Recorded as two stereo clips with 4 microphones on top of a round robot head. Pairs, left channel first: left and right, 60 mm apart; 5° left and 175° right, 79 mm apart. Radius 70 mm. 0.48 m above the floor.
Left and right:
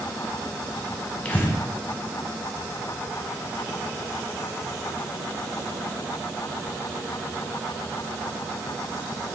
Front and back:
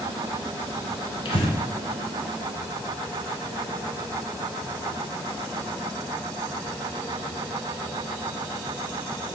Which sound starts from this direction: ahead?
Breathing, at 1.2 s.